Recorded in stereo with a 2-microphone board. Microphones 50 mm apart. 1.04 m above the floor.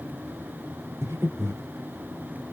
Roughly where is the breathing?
Right.